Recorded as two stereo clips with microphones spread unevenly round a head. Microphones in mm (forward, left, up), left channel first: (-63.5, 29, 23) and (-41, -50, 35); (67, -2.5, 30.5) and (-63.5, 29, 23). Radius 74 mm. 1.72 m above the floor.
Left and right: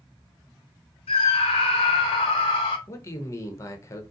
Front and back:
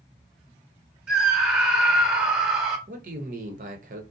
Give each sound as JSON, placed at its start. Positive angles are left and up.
{"t": 1.1, "sound": "a scream", "azimuth_deg": 85, "distance_m": 0.9}
{"t": 2.9, "sound": "a man speaking", "azimuth_deg": 160, "distance_m": 0.9}